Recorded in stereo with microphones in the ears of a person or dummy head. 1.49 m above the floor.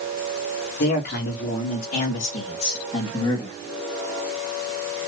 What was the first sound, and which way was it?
A man speaking, 55° left (ahead or behind).